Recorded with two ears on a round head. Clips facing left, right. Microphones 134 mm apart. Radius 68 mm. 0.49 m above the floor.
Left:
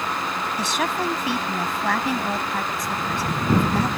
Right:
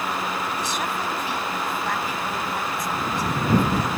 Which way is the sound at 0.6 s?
60° left (ahead or behind).